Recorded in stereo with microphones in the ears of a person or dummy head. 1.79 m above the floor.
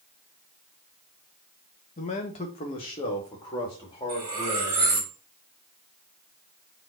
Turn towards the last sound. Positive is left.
turn(degrees=-25)  # may be behind; listen again after turning